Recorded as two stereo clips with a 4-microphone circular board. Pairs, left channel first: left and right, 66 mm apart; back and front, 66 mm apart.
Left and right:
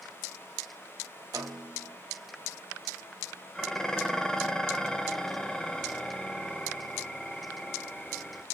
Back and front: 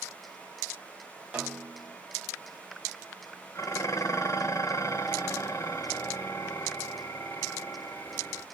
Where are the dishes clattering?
170° left, 0.8 m.